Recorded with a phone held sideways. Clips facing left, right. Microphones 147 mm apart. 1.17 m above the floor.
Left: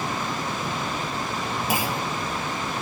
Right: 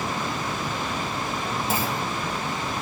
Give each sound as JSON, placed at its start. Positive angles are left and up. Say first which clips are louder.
{"t": 1.7, "sound": "a clunk", "louder": "left 1 dB", "side_deg": 10, "distance_m": 1.7}